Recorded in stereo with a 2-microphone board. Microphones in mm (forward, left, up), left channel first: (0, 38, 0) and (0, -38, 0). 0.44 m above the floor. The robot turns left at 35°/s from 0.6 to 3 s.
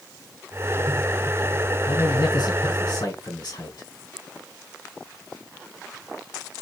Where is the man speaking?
115° left, 3 m; by 3.9 s 75° left, 3 m.